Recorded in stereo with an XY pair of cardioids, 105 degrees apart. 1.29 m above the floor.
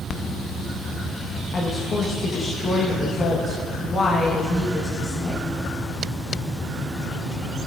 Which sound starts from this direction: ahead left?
A woman speaking, at 1.5 s.